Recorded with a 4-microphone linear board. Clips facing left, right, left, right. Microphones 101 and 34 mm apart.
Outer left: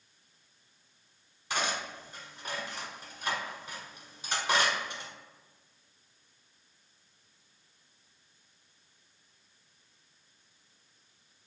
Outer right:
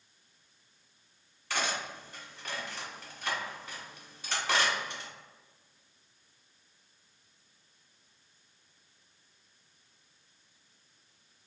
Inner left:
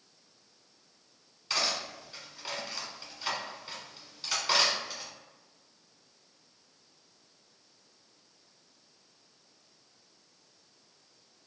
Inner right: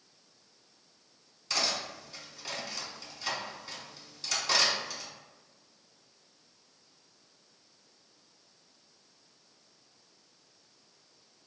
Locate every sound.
1.5 s cutlery clinking: 15° left (ahead or behind), 1.6 m